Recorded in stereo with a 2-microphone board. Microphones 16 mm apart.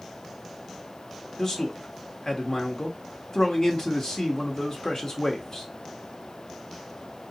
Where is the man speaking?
40° left (ahead or behind), 1.1 m.